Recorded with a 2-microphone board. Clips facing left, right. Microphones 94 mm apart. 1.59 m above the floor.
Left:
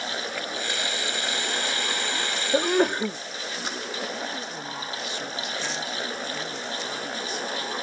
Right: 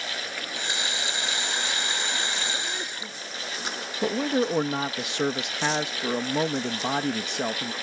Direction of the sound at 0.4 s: 20° right (ahead or behind).